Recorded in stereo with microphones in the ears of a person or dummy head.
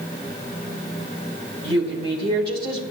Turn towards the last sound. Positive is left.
turn(degrees=-25)  # may be behind; listen again after turning